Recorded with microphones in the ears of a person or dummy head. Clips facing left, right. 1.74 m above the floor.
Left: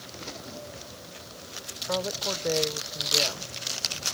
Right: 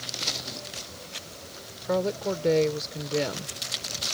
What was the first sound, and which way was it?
A woman speaking, 40° right (ahead or behind).